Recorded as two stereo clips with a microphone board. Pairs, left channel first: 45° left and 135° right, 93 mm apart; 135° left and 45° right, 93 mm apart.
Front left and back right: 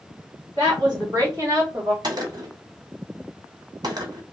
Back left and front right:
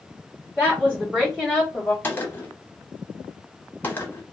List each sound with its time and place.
0.6 s a woman speaking: 115° right, 2 m; by 1.9 s 130° right, 1.6 m
2.0 s a gunshot: 160° right, 1.0 m